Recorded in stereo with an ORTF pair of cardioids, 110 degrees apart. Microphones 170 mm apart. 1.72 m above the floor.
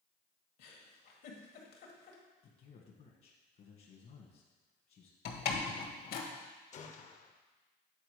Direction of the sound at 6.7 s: 45° left.